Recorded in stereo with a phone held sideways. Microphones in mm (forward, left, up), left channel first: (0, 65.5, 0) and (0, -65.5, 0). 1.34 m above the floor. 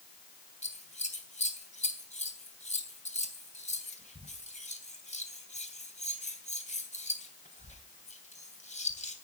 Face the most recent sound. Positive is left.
turn(degrees=75)  # may be behind; listen again after turning